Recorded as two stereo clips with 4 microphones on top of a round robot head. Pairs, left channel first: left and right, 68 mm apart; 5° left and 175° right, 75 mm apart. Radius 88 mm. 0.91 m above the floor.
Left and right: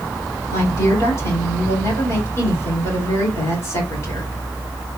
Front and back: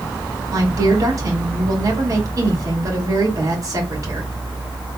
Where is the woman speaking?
140° left, 3 m.